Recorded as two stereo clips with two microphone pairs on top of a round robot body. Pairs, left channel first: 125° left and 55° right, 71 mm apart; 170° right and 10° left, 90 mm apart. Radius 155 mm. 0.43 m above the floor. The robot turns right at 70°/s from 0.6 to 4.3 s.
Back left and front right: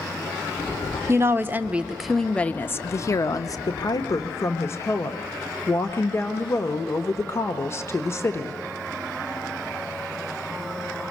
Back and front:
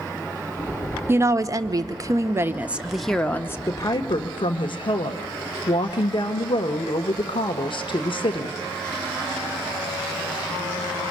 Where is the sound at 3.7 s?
130° left, 1.5 m; by 8.6 s 175° left, 1.5 m.